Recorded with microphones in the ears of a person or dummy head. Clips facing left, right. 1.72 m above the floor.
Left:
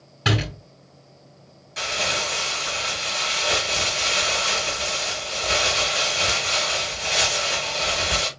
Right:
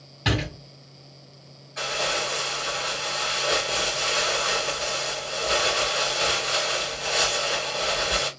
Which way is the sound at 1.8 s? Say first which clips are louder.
Even; 45° left (ahead or behind).